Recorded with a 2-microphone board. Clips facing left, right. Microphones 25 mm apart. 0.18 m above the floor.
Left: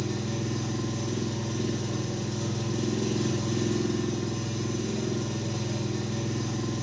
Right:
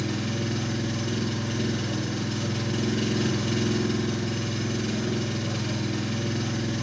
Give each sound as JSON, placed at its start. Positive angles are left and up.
{"t": 0.0, "sound": "an engine running", "side_deg": -60, "distance_m": 1.2}